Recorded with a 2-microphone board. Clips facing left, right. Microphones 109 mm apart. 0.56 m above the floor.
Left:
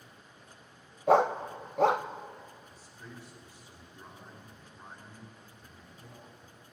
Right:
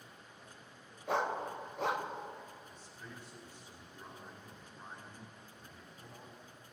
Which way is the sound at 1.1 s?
75° left (ahead or behind).